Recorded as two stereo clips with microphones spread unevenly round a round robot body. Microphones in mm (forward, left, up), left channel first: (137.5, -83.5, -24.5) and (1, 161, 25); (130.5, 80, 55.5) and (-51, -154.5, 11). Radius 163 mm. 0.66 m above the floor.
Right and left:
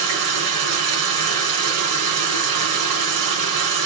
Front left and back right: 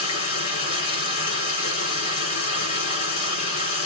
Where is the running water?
120° left, 5 m.